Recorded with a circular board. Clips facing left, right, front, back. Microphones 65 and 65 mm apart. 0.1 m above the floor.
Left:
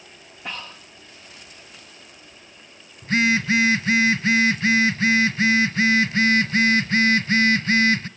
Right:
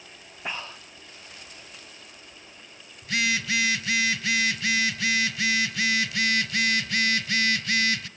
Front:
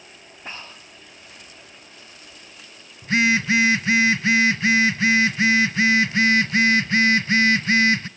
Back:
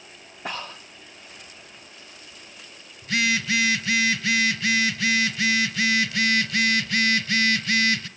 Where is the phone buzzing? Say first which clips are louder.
Left 7 dB, front 5 dB; 50° left, 0.7 m.